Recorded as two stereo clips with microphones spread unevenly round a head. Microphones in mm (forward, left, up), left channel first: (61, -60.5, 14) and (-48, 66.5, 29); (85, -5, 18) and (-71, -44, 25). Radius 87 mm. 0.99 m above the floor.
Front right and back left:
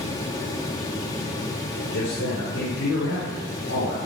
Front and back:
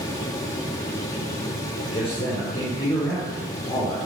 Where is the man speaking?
40° right, 3 m.